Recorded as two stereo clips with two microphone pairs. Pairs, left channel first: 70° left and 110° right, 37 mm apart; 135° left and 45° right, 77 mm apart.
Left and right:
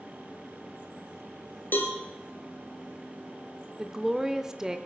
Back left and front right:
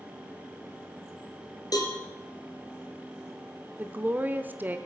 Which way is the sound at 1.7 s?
100° left.